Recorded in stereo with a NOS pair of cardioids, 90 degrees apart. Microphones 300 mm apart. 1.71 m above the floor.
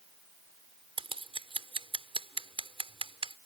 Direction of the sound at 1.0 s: 20° right.